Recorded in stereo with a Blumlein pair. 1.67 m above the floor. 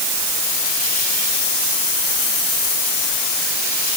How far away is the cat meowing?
No cat meowing in this recording.